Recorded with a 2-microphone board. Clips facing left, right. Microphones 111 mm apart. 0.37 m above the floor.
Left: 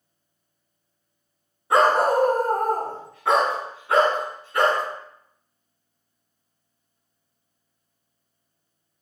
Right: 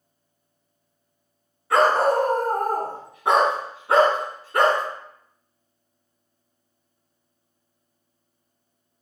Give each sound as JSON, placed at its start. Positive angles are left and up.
{"t": 1.7, "sound": "a dog barking", "side_deg": 25, "distance_m": 1.4}